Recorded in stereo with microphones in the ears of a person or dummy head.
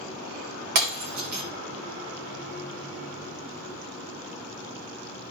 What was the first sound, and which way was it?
Breaking glass, 55° right (ahead or behind).